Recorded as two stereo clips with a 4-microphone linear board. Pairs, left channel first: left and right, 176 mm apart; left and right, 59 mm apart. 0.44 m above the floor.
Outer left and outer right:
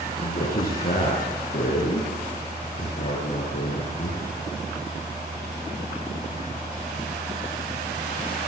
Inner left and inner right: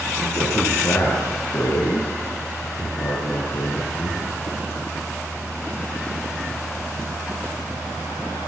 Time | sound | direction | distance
0.2 | a man speaking | 55° left (ahead or behind) | 7.5 m